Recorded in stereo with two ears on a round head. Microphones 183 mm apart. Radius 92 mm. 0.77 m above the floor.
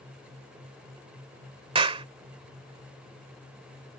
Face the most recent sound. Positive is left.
turn(degrees=-25)  # may be behind; listen again after turning